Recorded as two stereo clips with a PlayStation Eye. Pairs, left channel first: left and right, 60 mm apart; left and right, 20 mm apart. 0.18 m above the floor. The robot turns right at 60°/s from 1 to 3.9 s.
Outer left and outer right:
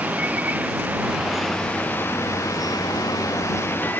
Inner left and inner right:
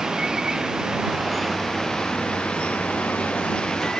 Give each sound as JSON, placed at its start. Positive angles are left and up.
{"t": 0.0, "sound": "running water", "azimuth_deg": -25}